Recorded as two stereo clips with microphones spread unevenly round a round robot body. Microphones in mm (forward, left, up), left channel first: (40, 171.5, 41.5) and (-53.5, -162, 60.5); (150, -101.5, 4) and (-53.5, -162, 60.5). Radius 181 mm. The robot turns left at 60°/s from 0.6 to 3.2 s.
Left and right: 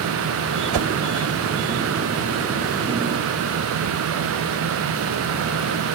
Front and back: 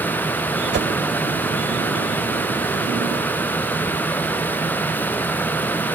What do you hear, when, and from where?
0.7 s a whoosh: 125° right; by 0.9 s 135° right